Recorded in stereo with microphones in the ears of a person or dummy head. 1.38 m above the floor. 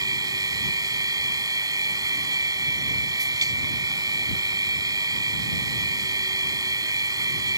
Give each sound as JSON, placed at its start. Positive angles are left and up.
{"t": 0.0, "sound": "a machine running", "side_deg": -15}